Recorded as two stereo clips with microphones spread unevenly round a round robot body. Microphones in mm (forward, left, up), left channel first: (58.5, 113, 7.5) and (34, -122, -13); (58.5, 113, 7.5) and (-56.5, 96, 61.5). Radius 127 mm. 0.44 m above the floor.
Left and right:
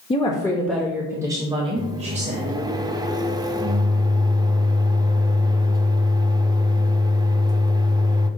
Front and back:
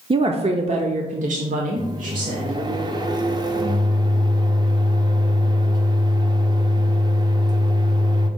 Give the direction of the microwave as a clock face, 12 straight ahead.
4 o'clock.